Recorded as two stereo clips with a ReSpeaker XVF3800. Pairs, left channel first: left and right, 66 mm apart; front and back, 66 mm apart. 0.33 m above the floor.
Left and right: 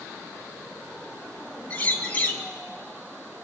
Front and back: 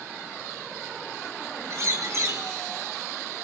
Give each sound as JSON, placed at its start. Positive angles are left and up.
{"t": 1.7, "sound": "a bird", "azimuth_deg": 150, "distance_m": 2.0}